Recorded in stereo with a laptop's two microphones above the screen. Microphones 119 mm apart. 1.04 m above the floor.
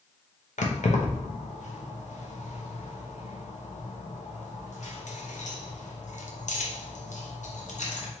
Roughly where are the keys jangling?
Left.